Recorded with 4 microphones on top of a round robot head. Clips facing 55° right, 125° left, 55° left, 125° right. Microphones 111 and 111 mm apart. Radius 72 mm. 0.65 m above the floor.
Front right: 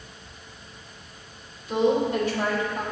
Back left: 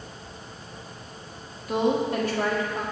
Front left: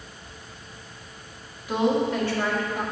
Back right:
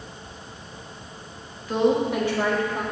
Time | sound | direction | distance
1.7 | a woman speaking | 125° left | 1.3 m